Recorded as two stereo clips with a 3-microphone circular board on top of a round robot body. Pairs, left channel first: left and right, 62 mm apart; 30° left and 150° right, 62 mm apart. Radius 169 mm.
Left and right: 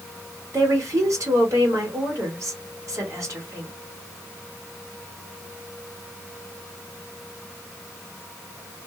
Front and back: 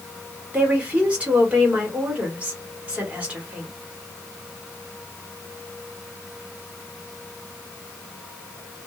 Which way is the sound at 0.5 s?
85° right.